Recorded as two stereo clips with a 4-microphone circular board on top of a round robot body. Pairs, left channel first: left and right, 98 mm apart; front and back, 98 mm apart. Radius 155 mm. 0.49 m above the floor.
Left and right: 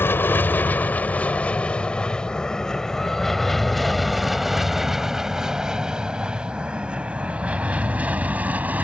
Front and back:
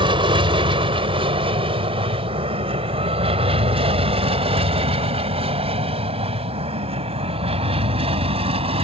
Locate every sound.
0.0 s an aircraft: 155° left; by 8.8 s 165° right